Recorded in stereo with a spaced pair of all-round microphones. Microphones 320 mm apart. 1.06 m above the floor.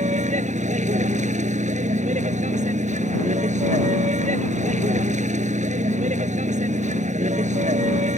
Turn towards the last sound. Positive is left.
turn(degrees=-20)  # may be behind; listen again after turning